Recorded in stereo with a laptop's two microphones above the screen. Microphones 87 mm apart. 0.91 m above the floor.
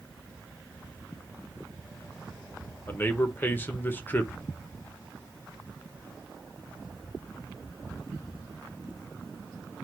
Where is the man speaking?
25° left (ahead or behind), 0.8 m.